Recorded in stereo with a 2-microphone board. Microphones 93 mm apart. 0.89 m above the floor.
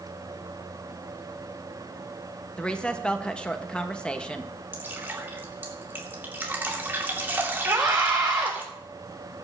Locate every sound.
2.6 s a woman speaking: 10° left (ahead or behind), 1.2 m
4.7 s dripping: 20° right (ahead or behind), 2.5 m
7.7 s a scream: 35° right (ahead or behind), 7 m